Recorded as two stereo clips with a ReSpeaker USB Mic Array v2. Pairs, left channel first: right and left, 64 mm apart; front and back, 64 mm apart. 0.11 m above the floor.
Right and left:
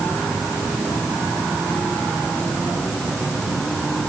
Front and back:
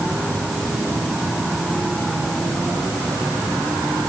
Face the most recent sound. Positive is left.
No sound to turn to.